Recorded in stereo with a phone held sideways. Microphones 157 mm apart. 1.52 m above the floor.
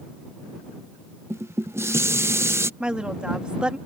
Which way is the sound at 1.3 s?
15° right (ahead or behind).